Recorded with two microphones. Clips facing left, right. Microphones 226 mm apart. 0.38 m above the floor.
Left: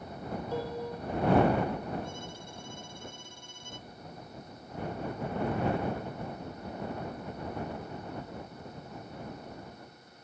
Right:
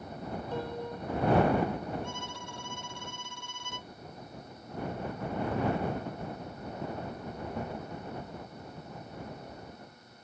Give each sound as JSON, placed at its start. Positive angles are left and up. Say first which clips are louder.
{"t": 0.5, "sound": "a piano", "louder": "left 2 dB", "side_deg": 10}
{"t": 2.0, "sound": "a violin", "louder": "even", "side_deg": -70}